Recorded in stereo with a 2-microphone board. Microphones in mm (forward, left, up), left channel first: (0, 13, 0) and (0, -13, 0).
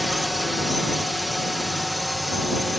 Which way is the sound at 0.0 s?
5° right (ahead or behind).